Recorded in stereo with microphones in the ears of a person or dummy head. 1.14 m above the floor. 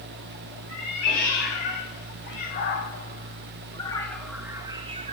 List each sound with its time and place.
0.7 s a cat meowing: 60° left (ahead or behind), 3 m; by 5.1 s 40° right (ahead or behind), 1.0 m